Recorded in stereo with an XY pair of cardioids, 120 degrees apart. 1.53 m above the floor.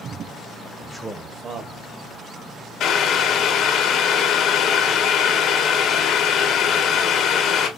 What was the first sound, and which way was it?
A man speaking, 25° left.